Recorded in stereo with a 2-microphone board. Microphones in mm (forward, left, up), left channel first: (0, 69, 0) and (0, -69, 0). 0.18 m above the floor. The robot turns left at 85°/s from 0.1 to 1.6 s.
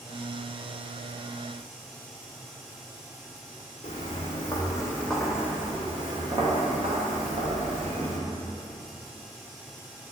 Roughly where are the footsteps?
Left.